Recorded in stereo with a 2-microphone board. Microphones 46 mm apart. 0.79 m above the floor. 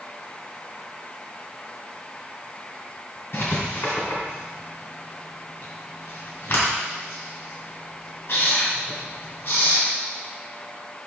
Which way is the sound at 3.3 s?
60° left (ahead or behind).